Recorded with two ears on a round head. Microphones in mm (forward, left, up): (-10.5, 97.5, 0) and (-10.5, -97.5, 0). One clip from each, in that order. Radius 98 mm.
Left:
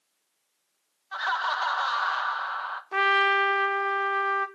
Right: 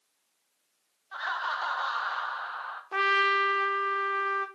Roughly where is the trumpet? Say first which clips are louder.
Left 2 dB; centre.